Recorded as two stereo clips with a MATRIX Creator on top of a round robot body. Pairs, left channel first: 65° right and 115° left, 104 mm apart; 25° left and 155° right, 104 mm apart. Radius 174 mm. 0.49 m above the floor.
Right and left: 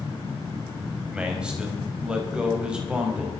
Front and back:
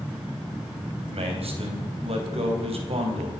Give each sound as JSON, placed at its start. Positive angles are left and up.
{"t": 1.1, "sound": "a man speaking", "azimuth_deg": -170, "distance_m": 3.5}